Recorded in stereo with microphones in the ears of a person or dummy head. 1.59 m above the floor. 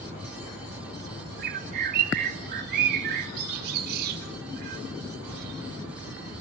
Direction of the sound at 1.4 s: 55° right (ahead or behind).